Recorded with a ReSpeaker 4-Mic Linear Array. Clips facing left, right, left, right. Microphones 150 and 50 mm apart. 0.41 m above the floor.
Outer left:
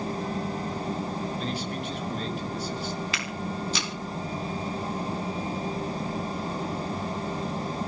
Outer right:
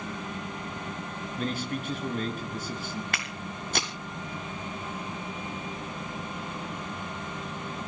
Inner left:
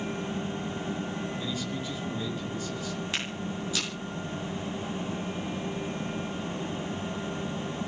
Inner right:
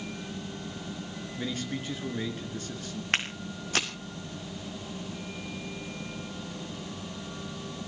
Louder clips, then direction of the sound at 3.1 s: Outer left 5 dB, inner right 2 dB; 55° right (ahead or behind).